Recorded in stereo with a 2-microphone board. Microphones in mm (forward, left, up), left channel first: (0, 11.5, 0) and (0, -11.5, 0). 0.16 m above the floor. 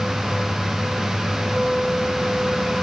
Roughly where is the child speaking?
No child speaking in this recording.